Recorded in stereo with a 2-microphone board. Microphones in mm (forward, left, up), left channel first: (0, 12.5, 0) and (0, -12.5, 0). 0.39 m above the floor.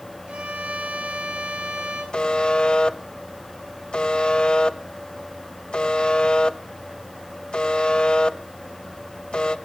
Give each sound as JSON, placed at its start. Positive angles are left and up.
{"t": 0.3, "sound": "a violin", "side_deg": -70, "distance_m": 9.5}
{"t": 2.1, "sound": "a buzzer", "side_deg": 45, "distance_m": 0.9}